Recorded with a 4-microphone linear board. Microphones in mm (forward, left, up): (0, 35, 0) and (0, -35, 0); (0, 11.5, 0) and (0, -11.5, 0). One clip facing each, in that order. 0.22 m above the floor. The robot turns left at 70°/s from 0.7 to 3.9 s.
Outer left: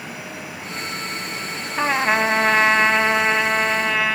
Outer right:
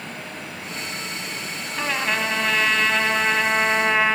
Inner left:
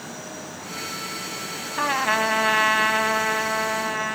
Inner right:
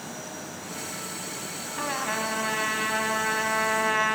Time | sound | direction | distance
1.8 | a trumpet | 125° left | 0.8 m